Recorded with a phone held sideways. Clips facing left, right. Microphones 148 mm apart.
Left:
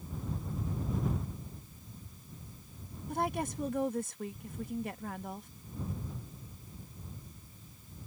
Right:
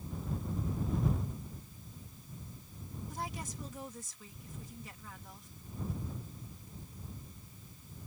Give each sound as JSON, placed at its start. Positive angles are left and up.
{"t": 3.1, "sound": "a woman speaking", "side_deg": 55}